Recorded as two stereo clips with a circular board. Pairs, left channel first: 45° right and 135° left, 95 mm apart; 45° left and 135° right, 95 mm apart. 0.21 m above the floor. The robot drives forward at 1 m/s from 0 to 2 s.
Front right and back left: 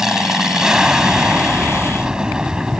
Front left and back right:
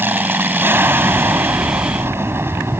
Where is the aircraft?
145° right; by 2.8 s 155° right.